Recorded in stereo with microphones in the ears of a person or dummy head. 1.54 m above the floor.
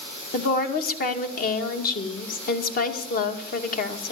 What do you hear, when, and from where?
0.3 s a woman speaking: 55° left (ahead or behind), 2.0 m